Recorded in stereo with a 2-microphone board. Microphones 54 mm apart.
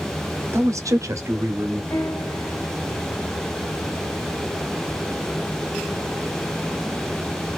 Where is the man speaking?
60° right (ahead or behind), 0.8 m; by 1.8 s 40° right (ahead or behind), 1.1 m.